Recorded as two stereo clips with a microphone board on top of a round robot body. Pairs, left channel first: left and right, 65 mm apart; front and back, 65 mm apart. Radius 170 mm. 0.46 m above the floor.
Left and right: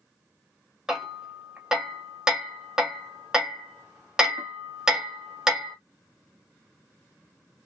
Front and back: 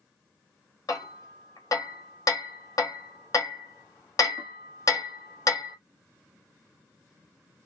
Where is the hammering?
10° right, 1.6 m.